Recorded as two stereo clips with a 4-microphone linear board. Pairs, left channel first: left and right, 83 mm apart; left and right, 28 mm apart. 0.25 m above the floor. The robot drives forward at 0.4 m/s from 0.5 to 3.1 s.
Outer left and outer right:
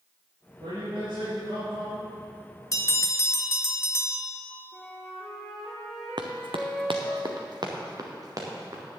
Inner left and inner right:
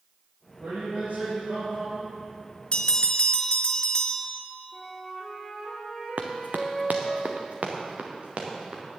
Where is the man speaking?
75° right (ahead or behind), 5.5 m; by 2.1 s 70° right (ahead or behind), 5.5 m.